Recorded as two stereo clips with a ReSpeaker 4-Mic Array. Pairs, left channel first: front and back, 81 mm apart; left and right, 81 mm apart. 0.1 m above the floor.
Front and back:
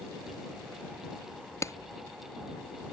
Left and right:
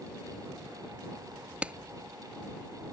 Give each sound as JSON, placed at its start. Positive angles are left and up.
{"t": 1.6, "sound": "a clap", "azimuth_deg": -25}